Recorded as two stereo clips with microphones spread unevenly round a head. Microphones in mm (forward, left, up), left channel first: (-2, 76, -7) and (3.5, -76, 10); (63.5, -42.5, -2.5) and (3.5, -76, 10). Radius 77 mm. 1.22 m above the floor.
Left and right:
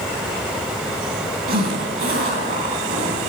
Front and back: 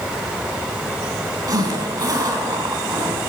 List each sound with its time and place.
1.5 s a zipper: 120° right, 3 m